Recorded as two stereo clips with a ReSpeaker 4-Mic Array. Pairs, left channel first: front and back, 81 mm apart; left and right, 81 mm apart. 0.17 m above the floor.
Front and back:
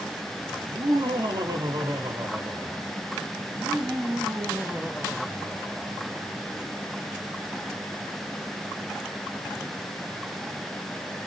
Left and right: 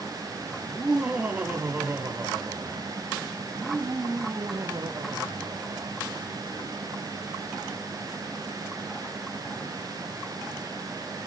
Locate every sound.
0.6 s laughter: 170° right, 5 m; by 6.0 s 100° right, 4.5 m